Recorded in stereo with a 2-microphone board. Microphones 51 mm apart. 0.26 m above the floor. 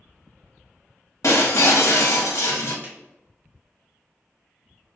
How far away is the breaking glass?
About 1.0 m.